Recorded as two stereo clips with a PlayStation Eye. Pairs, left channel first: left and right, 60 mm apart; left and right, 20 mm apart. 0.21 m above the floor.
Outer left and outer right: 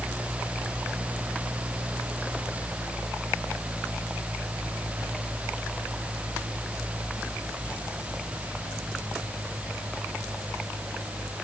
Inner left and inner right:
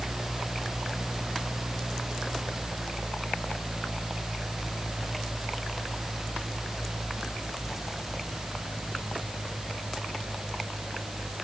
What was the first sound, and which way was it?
Only background noise.